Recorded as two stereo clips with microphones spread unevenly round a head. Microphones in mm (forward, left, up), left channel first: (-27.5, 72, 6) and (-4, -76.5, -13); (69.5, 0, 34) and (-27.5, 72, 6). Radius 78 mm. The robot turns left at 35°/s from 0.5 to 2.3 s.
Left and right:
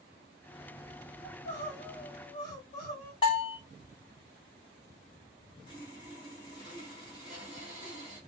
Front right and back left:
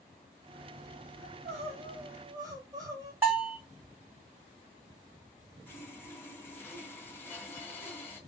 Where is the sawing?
35° left, 1.1 m.